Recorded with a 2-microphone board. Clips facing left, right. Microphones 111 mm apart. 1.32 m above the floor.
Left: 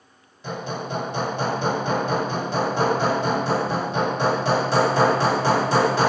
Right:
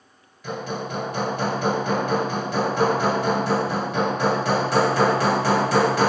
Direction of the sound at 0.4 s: 30° left (ahead or behind).